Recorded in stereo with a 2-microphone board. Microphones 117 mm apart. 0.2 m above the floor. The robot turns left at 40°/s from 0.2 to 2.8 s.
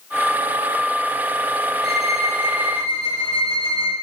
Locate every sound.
1.8 s a violin: 125° left, 7.5 m; by 3.9 s 85° left, 7.5 m